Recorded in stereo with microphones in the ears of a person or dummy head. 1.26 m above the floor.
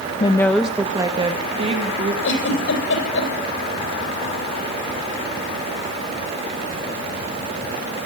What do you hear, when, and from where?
0.2 s a woman speaking: 25° left (ahead or behind), 0.9 m; by 2.1 s 40° right (ahead or behind), 2.5 m
2.2 s a giggle: 75° left (ahead or behind), 8.5 m